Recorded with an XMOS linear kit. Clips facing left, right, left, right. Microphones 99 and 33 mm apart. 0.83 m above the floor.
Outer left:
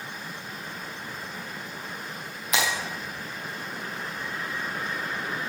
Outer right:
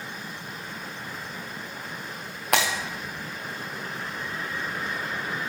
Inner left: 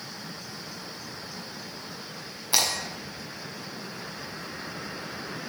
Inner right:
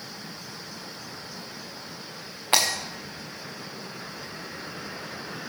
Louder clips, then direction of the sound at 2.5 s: Outer right 3 dB, inner right 3 dB; 65° right (ahead or behind).